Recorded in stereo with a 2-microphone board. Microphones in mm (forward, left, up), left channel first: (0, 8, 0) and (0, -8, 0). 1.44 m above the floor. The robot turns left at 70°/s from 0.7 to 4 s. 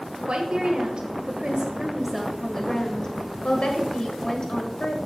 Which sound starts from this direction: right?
A woman speaking, at 0.3 s.